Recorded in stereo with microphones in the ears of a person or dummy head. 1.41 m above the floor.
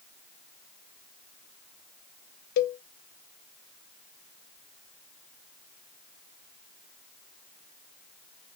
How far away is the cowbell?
About 0.6 m.